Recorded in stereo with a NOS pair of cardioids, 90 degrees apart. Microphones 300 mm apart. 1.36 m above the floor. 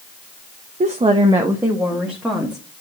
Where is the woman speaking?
25° right, 0.9 m; by 2.6 s straight ahead, 2 m.